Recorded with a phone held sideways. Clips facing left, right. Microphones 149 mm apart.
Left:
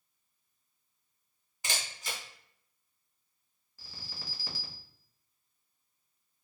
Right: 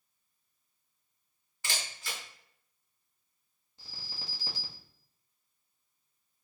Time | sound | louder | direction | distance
1.6 | a camera shutter | left 1 dB | 20° left (ahead or behind) | 1.0 m
3.8 | an alarm | even | 25° right (ahead or behind) | 0.6 m